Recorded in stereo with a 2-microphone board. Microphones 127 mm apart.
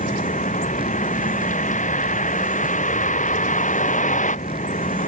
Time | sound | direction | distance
0.0 | a vehicle | 80° left | ?